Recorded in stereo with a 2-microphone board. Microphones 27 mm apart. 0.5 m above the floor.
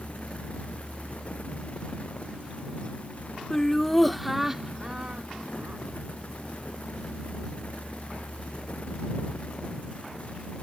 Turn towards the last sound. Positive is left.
turn(degrees=-50)  # may be behind; listen again after turning